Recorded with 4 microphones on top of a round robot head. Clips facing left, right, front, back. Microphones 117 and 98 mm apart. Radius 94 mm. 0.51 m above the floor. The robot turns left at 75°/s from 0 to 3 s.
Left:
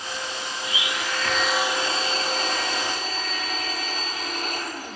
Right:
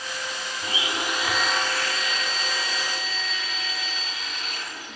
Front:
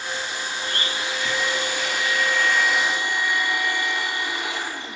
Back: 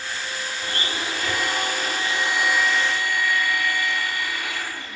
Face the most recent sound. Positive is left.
turn(degrees=65)